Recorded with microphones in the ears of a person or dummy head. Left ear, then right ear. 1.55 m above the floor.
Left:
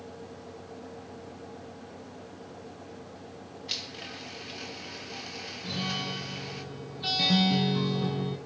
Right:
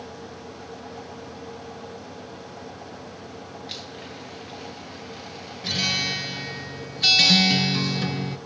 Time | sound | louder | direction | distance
3.7 | a blender | left 4 dB | 15° left (ahead or behind) | 1.8 m
5.6 | a guitar | right 10 dB | 60° right (ahead or behind) | 1.6 m